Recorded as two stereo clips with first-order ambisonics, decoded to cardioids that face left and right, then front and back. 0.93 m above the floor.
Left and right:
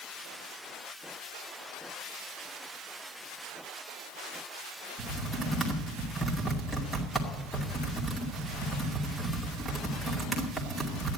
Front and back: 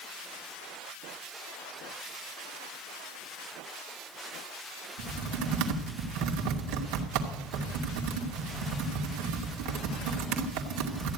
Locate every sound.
5.0 s typing on a keyboard: straight behind, 2.5 m